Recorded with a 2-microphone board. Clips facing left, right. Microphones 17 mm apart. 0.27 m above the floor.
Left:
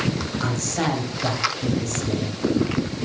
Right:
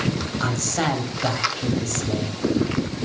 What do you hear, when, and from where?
0.4 s a man speaking: 15° right (ahead or behind), 1.0 m